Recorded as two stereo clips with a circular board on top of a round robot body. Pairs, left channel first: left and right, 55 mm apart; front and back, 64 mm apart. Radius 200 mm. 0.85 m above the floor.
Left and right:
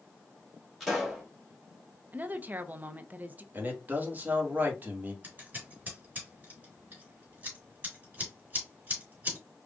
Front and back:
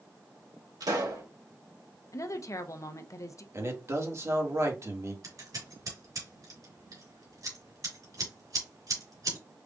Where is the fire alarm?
No fire alarm in this recording.